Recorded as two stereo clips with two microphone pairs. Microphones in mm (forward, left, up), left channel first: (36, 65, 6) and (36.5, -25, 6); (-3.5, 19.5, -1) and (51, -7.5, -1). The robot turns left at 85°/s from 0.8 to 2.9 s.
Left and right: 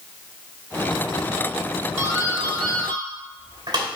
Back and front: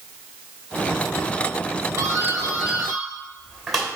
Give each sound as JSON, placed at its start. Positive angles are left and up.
{"t": 2.0, "sound": "a doorbell", "azimuth_deg": -35, "distance_m": 2.5}